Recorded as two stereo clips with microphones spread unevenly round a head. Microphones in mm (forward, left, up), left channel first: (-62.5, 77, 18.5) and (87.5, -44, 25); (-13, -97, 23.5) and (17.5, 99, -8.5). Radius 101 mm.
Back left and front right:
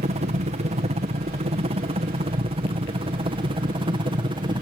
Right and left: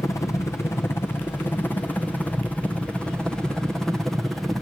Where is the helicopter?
20° right; by 4.6 s 5° left.